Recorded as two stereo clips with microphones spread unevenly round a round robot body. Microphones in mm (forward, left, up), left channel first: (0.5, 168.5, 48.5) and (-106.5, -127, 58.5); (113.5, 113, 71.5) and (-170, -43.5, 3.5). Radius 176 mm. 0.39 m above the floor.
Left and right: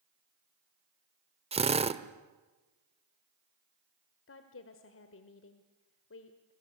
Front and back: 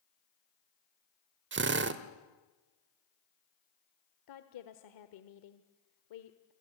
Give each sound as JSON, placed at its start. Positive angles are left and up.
{"t": 1.5, "sound": "a drill", "azimuth_deg": 180, "distance_m": 1.2}
{"t": 4.3, "sound": "a woman speaking", "azimuth_deg": 35, "distance_m": 1.4}